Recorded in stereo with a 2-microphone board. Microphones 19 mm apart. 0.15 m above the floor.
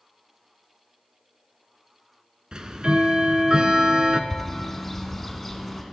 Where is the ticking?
50° right (ahead or behind), 0.6 m.